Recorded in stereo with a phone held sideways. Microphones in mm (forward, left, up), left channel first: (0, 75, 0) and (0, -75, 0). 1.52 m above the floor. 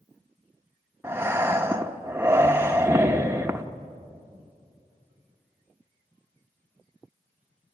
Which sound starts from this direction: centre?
Breathing, at 1.0 s.